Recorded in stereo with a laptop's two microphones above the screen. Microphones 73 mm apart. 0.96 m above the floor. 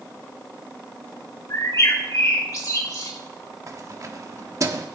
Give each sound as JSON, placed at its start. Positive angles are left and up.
{"t": 1.5, "sound": "a bird", "side_deg": 50, "distance_m": 2.5}
{"t": 3.7, "sound": "keys jangling", "side_deg": -45, "distance_m": 1.2}